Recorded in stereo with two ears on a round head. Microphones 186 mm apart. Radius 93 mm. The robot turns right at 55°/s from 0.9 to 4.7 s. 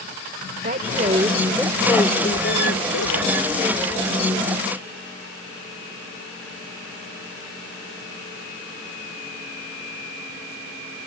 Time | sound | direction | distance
0.6 | a woman speaking | 40° right | ?